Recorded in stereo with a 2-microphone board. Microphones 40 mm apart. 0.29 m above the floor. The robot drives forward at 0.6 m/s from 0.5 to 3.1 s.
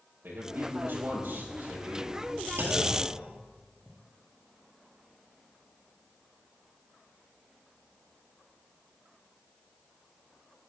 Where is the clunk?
80° right, 3 m; by 4.0 s 75° right (ahead or behind), 3 m.